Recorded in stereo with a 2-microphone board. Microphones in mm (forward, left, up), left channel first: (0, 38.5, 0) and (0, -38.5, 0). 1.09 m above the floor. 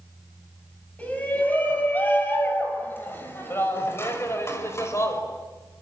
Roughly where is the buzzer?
No buzzer in this recording.